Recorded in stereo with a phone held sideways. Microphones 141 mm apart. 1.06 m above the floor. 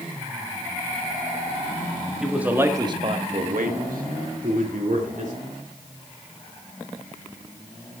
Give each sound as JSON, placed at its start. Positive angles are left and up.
{"t": 2.2, "sound": "a man speaking", "side_deg": -5, "distance_m": 1.8}